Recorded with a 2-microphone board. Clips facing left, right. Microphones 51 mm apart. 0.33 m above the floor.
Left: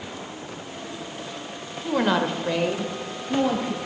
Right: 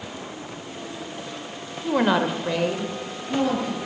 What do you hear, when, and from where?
1.8 s a woman speaking: 10° right (ahead or behind), 1.0 m; by 3.8 s 15° left (ahead or behind), 1.8 m